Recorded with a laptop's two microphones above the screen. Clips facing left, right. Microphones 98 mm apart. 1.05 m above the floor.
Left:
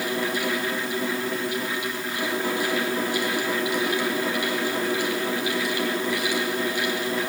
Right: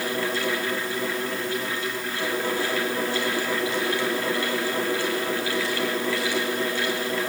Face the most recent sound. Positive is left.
turn(degrees=15)  # may be behind; listen again after turning